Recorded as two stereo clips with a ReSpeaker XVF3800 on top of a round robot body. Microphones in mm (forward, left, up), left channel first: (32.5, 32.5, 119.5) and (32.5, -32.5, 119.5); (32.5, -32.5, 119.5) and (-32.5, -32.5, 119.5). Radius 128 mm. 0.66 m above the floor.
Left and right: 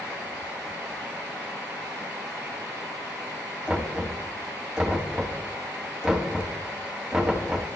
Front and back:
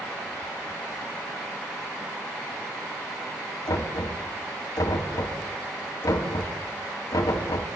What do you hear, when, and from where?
3.7 s knocking: 10° right, 3.5 m